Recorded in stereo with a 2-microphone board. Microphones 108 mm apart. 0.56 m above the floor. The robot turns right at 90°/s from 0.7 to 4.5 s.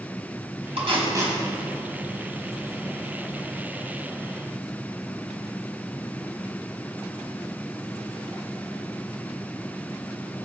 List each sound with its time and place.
0.8 s tape being pulled: 65° right (ahead or behind), 4 m; by 1.4 s 15° right (ahead or behind), 4 m